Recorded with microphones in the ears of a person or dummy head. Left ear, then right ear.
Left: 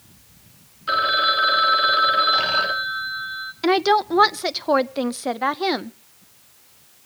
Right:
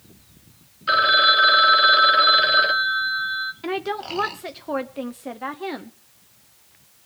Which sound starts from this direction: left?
A woman speaking, at 3.6 s.